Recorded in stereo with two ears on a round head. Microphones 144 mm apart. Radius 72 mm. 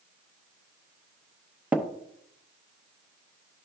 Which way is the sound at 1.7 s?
10° right (ahead or behind).